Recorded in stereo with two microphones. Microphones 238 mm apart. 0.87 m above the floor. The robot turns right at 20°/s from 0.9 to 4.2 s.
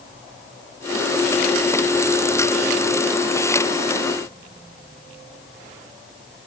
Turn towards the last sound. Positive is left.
No sound to turn to.